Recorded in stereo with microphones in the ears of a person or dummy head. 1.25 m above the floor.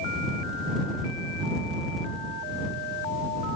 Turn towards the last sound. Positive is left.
No sound to turn to.